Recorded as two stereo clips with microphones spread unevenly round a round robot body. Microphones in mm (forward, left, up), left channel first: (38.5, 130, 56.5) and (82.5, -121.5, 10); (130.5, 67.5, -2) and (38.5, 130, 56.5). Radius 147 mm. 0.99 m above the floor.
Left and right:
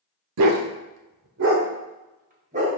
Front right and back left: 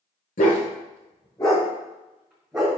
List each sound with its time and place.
0.4 s a dog barking: 85° right, 0.8 m; by 2.7 s 150° right, 1.4 m